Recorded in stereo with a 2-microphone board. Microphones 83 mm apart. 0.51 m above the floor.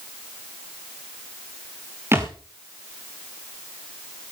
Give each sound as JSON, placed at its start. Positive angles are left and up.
{"t": 2.1, "sound": "a thud", "side_deg": -30, "distance_m": 4.0}